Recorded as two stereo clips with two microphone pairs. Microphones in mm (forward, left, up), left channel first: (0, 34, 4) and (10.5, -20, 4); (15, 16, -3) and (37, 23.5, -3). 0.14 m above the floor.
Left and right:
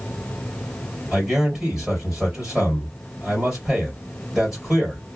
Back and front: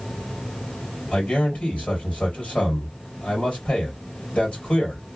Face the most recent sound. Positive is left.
turn(degrees=-150)